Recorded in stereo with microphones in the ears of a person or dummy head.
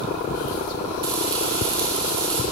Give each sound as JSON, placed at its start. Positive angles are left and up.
{"t": 1.0, "sound": "frying", "side_deg": -25, "distance_m": 2.0}